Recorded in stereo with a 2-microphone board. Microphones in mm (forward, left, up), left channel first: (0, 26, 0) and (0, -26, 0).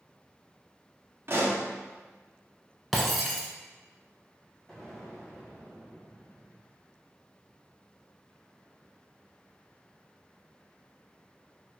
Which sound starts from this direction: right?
A pop, at 1.3 s.